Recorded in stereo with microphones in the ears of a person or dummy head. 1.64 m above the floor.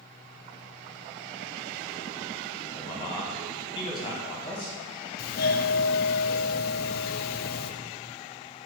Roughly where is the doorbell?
Left.